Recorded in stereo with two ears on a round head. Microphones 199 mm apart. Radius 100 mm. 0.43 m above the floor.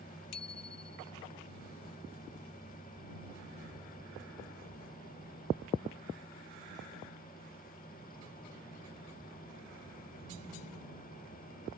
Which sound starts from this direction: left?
A bicycle bell, at 0.3 s.